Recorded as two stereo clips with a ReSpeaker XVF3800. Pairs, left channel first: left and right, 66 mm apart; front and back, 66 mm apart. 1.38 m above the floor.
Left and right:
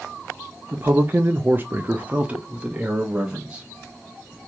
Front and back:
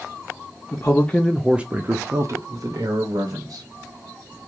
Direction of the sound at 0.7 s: 35° right.